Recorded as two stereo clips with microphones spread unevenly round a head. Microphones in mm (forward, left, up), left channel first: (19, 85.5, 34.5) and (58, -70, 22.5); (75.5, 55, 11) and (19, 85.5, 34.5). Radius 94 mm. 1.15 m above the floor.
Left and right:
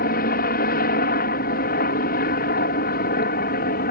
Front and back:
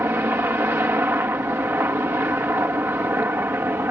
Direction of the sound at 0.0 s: 100° left.